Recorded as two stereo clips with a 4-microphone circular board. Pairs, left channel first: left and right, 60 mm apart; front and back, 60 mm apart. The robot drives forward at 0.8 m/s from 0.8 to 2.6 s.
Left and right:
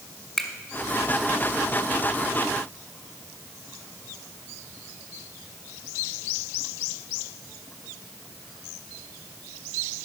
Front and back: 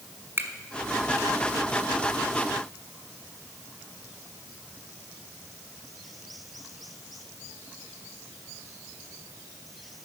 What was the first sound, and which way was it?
A finger snap, 175° left.